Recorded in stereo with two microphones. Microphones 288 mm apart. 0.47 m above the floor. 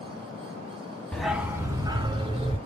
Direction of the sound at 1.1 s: 5° left (ahead or behind).